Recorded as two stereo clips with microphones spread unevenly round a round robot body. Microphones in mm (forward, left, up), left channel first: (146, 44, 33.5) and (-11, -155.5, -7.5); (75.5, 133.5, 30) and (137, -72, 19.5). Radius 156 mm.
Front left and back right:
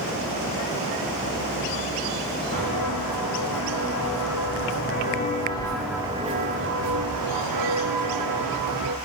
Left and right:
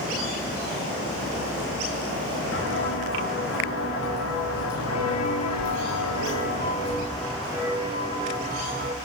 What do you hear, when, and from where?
2.5 s footsteps: 85° left, 6 m; by 8.9 s 140° right, 4.5 m